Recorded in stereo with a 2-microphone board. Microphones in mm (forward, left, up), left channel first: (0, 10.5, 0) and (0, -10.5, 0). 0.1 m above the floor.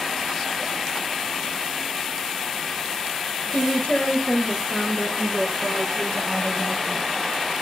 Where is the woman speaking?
60° left (ahead or behind), 2.5 m; by 7.1 s 70° left (ahead or behind), 4 m.